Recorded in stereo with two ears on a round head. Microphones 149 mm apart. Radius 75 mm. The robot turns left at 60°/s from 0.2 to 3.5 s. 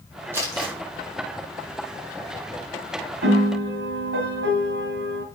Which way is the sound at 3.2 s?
80° right.